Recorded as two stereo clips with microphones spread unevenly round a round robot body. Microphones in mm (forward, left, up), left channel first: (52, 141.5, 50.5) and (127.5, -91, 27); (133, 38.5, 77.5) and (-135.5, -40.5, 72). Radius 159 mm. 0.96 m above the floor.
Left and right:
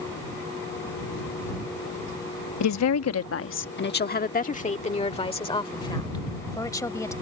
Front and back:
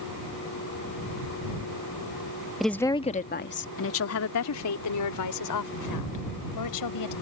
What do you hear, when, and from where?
2.6 s a woman speaking: 110° left; by 7.1 s 30° left